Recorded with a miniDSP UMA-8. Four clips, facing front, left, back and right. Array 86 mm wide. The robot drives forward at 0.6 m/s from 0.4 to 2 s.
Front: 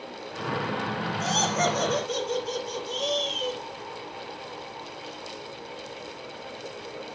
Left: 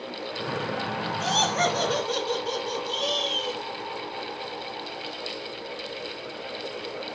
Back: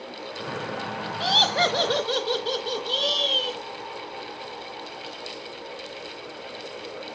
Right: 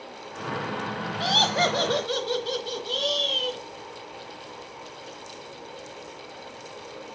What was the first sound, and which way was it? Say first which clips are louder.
Laughter: right 1 dB, back 3 dB; 140° right.